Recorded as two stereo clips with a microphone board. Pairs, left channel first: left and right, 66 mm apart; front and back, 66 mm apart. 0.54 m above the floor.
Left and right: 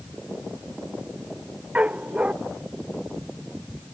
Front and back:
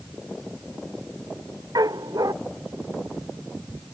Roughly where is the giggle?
I don't hear a giggle.